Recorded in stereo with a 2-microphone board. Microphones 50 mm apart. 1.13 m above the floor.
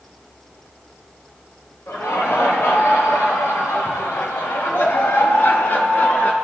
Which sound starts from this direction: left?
Laughter, at 1.9 s.